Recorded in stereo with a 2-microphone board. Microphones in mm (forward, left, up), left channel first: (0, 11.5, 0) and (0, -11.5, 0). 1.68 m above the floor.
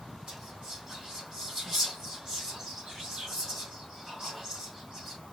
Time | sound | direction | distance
0.3 | whispering | 20° right (ahead or behind) | 2.5 m